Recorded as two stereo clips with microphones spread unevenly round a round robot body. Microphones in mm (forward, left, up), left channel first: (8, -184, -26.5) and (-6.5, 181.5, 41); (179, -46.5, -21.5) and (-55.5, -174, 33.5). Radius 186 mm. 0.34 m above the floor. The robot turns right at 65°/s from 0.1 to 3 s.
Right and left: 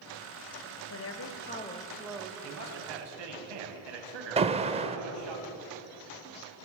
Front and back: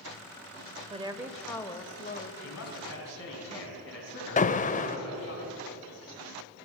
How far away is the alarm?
About 0.7 m.